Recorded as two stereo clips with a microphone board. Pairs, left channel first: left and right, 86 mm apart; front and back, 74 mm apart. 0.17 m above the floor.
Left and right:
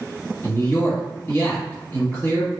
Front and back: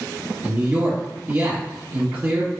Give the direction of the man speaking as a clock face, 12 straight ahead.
8 o'clock.